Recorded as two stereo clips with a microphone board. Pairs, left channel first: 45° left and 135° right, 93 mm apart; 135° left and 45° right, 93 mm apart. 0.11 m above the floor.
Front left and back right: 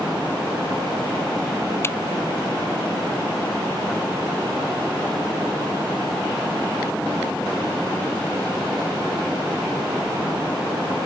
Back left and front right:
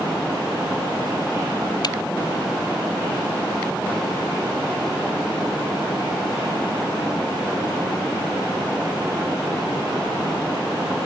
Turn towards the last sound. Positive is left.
turn(degrees=105)